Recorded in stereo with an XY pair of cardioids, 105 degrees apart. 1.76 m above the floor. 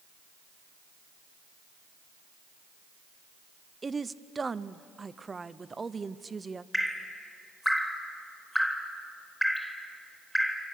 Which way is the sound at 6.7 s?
10° left.